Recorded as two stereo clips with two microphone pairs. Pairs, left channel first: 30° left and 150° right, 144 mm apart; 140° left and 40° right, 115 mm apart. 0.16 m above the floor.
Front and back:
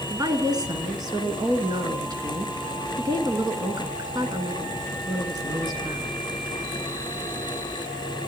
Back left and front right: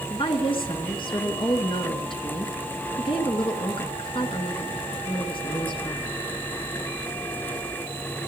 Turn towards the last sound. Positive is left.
turn(degrees=155)